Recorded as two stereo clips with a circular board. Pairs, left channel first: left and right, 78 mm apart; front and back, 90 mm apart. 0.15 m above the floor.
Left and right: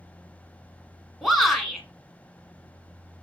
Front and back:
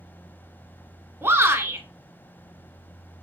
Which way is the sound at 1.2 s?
175° left.